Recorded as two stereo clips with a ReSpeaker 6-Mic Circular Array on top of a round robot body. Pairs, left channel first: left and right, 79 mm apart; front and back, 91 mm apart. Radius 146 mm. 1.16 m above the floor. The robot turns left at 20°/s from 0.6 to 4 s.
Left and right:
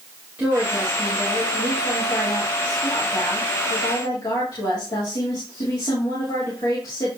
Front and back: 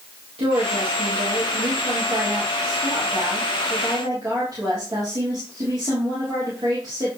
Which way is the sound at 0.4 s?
165° right.